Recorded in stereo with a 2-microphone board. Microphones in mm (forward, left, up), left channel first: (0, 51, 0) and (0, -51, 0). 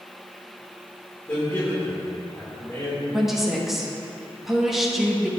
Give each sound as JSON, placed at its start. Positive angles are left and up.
{"t": 1.3, "sound": "a man speaking", "side_deg": 20, "distance_m": 2.0}
{"t": 3.1, "sound": "a woman speaking", "side_deg": -5, "distance_m": 1.1}